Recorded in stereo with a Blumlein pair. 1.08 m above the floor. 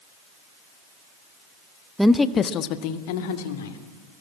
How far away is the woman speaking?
About 1.0 m.